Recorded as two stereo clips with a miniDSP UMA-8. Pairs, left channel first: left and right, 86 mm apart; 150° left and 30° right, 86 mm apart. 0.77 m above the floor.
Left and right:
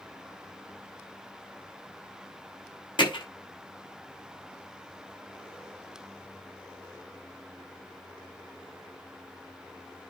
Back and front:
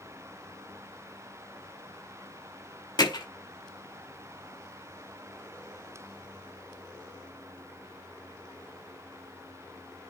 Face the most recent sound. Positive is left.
turn(degrees=115)